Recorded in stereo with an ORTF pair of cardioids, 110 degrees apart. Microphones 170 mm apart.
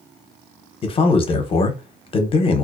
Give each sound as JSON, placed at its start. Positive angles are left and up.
{"t": 0.8, "sound": "a man speaking", "azimuth_deg": 30, "distance_m": 0.7}